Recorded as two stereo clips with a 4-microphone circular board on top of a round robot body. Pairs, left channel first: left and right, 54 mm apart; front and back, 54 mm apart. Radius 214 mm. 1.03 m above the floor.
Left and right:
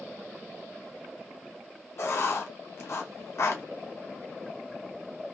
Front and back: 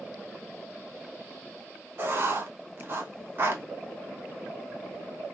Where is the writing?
130° left, 0.8 m.